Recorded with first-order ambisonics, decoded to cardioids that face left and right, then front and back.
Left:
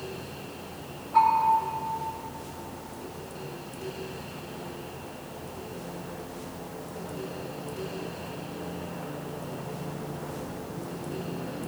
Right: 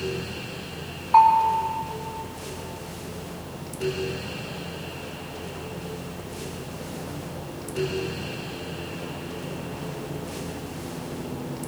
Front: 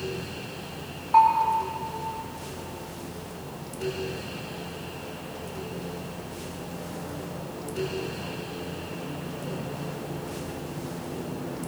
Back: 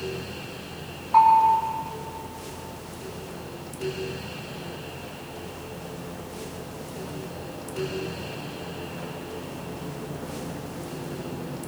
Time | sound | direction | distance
1.1 | a bell | 70° right | 3 m